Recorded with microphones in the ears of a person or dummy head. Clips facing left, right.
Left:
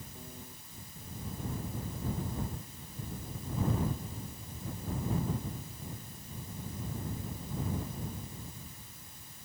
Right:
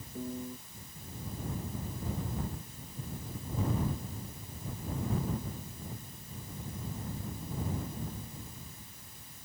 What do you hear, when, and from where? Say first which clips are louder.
0.1 s a piano: right 16 dB; 75° right (ahead or behind)